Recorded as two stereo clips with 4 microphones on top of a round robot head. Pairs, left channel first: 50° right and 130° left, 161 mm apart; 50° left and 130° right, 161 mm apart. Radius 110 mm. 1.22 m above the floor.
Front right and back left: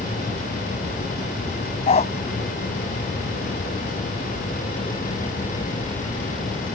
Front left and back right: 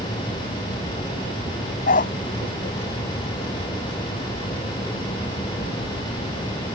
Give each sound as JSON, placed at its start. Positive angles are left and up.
{"t": 1.9, "sound": "a dog barking", "azimuth_deg": 5}